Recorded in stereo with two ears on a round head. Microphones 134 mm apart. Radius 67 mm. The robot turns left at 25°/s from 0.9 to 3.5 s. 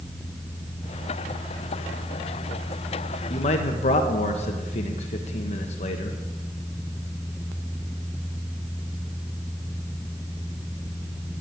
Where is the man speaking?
40° left (ahead or behind), 1.1 m; by 6.2 s 45° left (ahead or behind), 1.1 m.